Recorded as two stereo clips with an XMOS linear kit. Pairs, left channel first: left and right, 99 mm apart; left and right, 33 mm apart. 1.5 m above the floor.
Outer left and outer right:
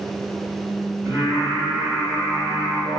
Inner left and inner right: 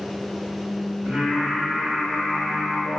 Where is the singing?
35° right (ahead or behind), 2.0 m.